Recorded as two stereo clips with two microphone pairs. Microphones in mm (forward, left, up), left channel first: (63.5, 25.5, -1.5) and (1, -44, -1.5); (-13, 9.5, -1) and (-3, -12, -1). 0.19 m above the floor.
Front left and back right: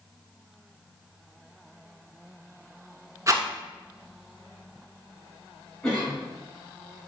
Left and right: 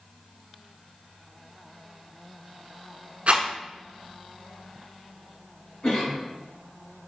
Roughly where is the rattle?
Right.